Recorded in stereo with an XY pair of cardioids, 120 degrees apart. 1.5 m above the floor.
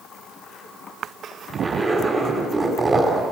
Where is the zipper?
25° right, 4.5 m.